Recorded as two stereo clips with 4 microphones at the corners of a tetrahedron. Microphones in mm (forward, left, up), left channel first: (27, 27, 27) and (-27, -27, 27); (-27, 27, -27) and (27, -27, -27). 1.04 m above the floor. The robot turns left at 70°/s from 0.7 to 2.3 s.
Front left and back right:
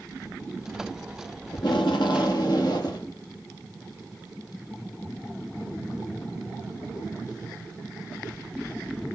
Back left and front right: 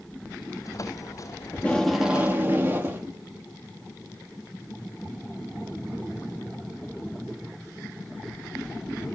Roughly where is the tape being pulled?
Left.